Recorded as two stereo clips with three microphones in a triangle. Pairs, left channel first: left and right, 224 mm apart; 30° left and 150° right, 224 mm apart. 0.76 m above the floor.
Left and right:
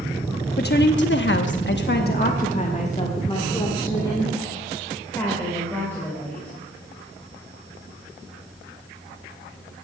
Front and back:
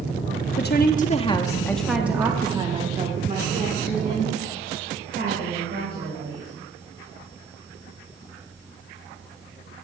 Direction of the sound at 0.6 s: 55° left.